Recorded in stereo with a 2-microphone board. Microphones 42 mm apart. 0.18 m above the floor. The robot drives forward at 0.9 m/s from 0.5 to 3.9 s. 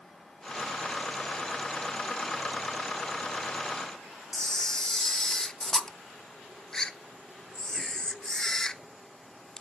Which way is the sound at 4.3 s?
15° left (ahead or behind).